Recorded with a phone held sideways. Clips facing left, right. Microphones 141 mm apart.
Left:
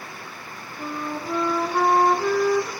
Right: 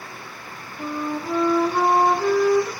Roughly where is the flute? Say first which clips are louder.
Right 3 dB; centre.